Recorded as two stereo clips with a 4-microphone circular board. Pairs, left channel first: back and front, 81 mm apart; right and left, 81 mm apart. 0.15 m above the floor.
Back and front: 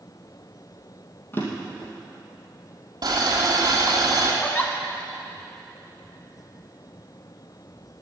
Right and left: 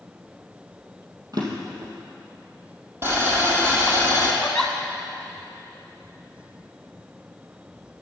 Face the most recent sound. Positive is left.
turn(degrees=-160)